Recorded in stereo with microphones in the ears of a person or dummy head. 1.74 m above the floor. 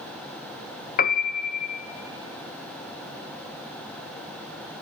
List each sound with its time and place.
1.0 s a piano: 50° left (ahead or behind), 0.9 m